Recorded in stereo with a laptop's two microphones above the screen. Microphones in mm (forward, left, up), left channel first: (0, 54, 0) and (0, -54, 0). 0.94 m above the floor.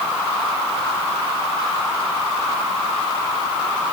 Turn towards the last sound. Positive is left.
No sound to turn to.